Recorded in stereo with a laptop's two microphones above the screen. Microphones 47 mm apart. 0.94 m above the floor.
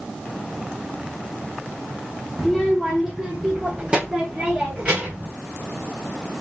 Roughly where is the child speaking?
Centre.